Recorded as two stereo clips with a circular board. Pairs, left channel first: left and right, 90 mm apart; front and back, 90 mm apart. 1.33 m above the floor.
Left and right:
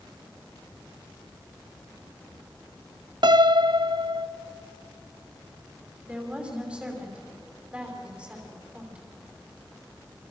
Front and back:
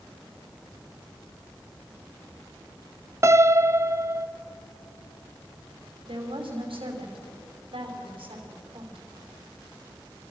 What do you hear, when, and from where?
3.2 s a piano: 120° right, 0.6 m
6.1 s a woman speaking: 170° right, 5 m